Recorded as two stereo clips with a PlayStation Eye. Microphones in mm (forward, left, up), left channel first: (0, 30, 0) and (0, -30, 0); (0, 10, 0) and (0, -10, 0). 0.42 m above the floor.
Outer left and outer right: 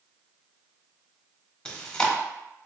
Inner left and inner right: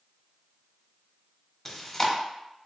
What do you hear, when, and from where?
1.6 s chewing: 15° left (ahead or behind), 0.7 m